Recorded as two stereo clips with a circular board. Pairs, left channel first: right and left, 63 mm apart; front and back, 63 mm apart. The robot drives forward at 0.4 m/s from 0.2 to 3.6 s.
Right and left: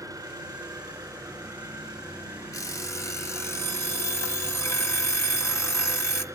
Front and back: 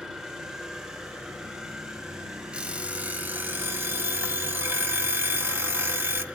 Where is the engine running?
105° left, 5.5 m; by 6.3 s 115° left, 6 m.